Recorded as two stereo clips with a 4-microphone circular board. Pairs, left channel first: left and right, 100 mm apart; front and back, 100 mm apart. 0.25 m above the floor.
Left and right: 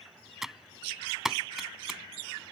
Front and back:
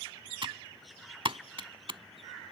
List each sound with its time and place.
0.4 s typing on a keyboard: 175° right